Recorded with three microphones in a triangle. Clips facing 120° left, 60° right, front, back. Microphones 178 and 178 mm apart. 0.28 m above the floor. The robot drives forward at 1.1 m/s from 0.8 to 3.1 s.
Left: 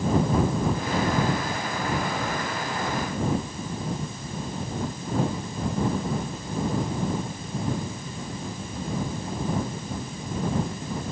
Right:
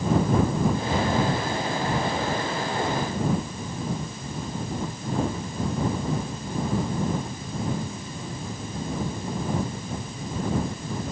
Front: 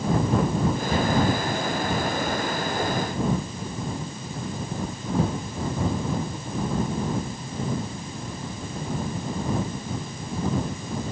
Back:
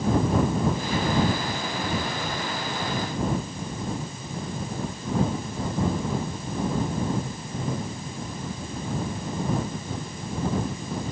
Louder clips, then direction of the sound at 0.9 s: Even, front 2 dB; 15° left.